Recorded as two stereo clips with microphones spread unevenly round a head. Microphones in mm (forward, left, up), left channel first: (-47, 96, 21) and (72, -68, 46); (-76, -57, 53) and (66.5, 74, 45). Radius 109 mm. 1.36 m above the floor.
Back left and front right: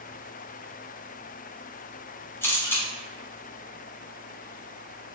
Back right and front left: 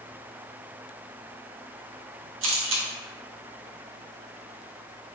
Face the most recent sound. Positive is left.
turn(degrees=45)